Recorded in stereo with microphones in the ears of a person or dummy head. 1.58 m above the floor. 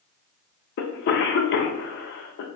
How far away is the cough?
About 0.8 m.